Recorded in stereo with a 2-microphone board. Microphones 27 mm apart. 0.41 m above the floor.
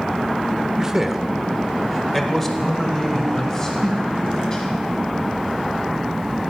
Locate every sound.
0.8 s a man speaking: 25° right (ahead or behind), 0.8 m; by 4.8 s 20° left (ahead or behind), 3 m